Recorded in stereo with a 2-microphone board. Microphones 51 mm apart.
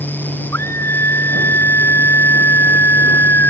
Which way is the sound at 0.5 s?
50° left (ahead or behind).